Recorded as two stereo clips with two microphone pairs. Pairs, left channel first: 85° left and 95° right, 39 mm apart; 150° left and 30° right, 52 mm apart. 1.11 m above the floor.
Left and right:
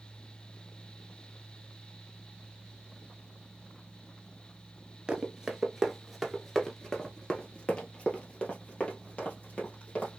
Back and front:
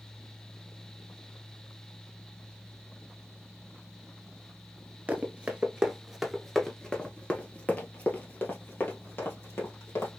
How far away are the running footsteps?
About 1.2 m.